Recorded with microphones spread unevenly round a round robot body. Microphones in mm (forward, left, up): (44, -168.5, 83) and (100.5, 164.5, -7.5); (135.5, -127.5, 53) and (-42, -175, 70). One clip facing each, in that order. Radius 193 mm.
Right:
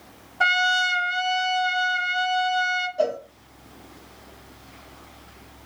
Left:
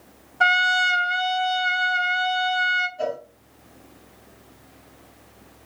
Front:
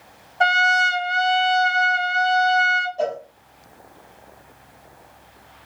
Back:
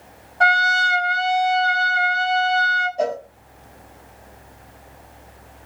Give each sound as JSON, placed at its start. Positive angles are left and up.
{"t": 0.4, "sound": "a trumpet", "azimuth_deg": 10, "distance_m": 0.7}
{"t": 3.0, "sound": "a cowbell", "azimuth_deg": -90, "distance_m": 1.7}